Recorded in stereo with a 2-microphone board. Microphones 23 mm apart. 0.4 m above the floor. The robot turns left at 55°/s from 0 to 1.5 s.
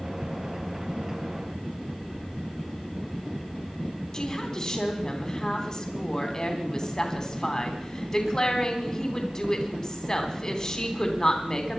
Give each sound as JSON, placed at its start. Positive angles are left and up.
{"t": 4.1, "sound": "a woman speaking", "side_deg": 30, "distance_m": 3.0}